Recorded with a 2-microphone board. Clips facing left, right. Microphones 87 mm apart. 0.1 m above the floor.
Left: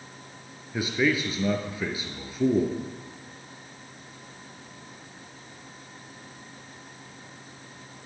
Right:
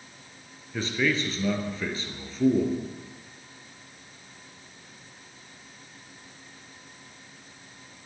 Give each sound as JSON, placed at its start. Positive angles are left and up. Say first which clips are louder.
{"t": 0.7, "sound": "a man speaking", "louder": "left 2 dB", "side_deg": 10, "distance_m": 1.4}